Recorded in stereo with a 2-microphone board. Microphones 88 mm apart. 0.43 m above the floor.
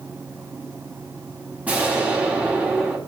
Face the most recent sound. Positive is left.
turn(degrees=-15)  # may be behind; listen again after turning